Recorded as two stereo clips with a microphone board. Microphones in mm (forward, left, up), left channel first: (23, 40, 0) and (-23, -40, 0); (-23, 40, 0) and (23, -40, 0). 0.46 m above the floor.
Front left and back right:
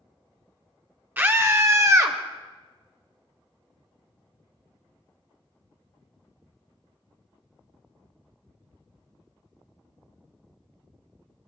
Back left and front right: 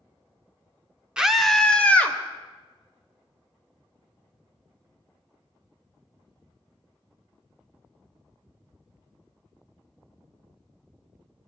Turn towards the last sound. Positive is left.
turn(degrees=-170)